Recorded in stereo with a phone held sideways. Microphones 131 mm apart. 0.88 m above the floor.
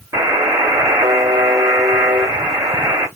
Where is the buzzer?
25° right (ahead or behind), 1.1 m.